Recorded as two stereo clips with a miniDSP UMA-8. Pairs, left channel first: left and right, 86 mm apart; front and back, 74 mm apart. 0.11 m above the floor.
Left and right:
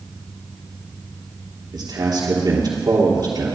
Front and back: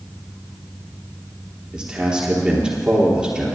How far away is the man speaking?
About 3 m.